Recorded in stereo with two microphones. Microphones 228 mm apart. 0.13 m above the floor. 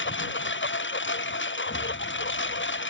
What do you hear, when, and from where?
0.0 s a lawn mower: 55° left (ahead or behind)
1.7 s an explosion: 40° left (ahead or behind)